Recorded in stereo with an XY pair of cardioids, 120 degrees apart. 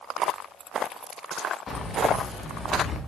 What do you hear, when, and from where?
1.7 s keys jangling: 35° left, 2 m; by 3.0 s 30° left, 3 m